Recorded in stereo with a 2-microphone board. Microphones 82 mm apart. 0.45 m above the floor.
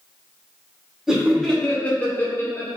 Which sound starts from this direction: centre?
Laughter, at 1.1 s.